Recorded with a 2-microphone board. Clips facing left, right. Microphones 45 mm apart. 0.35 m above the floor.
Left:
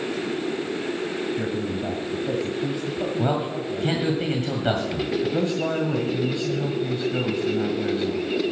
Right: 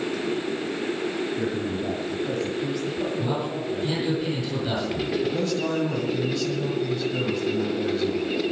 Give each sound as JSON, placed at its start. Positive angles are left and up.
{"t": 1.3, "sound": "a man speaking", "side_deg": 15, "distance_m": 1.8}
{"t": 3.2, "sound": "a man speaking", "side_deg": 55, "distance_m": 2.5}
{"t": 5.2, "sound": "a man speaking", "side_deg": 20, "distance_m": 1.7}